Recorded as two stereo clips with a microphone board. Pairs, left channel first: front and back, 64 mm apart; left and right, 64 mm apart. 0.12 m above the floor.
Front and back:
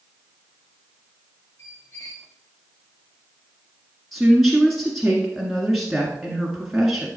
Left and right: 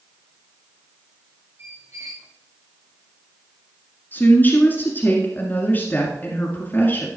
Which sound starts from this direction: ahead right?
A squeak, at 1.6 s.